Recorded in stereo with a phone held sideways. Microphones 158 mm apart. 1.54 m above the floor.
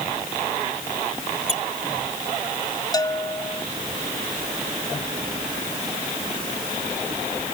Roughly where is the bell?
Left.